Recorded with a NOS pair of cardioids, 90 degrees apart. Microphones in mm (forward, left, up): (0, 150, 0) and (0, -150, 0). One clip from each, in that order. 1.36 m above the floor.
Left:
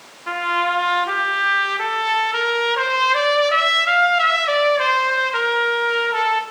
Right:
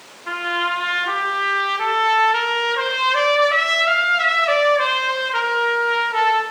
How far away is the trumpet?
About 1.6 m.